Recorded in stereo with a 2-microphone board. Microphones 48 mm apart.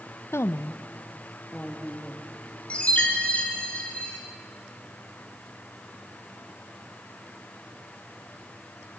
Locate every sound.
0.3 s a woman speaking: 65° left (ahead or behind), 0.6 m; by 2.3 s 20° left (ahead or behind), 2 m
2.7 s a chime: 30° left (ahead or behind), 3.5 m